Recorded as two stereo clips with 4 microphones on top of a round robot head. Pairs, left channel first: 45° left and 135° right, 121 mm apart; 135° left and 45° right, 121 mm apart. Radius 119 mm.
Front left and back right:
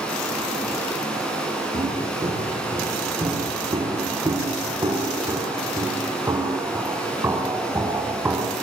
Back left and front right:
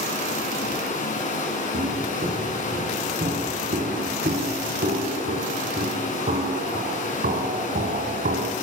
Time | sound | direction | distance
0.0 | running water | 130° left | 6 m
1.7 | footsteps | 70° right | 7.5 m